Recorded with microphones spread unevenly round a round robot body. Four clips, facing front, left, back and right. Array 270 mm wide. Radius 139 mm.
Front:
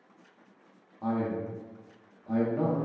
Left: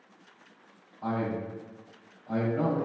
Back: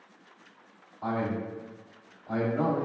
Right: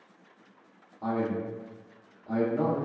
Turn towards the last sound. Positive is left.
turn(degrees=-40)